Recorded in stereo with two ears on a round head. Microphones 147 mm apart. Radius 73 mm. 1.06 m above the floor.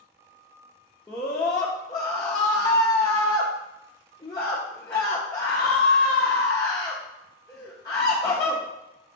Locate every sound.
1.1 s a scream: 20° left (ahead or behind), 0.7 m